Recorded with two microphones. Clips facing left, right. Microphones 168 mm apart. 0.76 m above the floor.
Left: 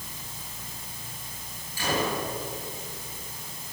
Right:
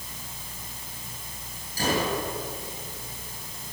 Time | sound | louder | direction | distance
1.8 | a gunshot | right 2 dB | 45° right (ahead or behind) | 8.5 m